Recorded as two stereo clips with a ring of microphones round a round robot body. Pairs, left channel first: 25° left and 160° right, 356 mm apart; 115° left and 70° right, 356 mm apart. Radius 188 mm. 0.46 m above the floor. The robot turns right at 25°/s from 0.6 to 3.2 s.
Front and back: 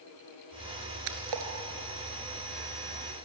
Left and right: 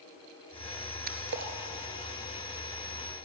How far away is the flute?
I don't hear a flute.